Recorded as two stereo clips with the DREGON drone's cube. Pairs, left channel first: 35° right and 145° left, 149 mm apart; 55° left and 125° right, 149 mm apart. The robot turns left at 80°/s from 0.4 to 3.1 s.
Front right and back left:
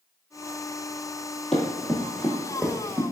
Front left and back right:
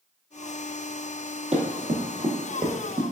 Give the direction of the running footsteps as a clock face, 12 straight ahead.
4 o'clock.